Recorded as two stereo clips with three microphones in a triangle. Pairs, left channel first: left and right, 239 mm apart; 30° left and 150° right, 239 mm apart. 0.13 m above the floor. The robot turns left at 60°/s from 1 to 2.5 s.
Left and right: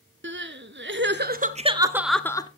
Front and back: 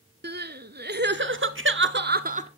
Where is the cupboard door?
No cupboard door in this recording.